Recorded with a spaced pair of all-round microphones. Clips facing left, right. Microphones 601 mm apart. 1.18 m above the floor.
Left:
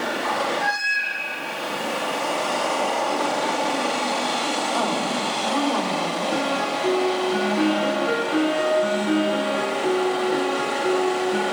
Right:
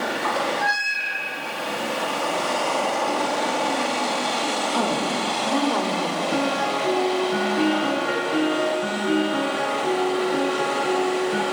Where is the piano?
20° right (ahead or behind), 7 m.